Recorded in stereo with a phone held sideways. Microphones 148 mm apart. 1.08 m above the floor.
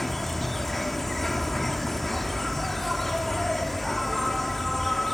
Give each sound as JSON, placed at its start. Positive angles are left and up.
{"t": 0.0, "sound": "an insect", "side_deg": 0}